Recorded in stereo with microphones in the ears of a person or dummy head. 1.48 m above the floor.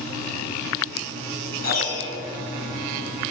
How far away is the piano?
About 4.5 m.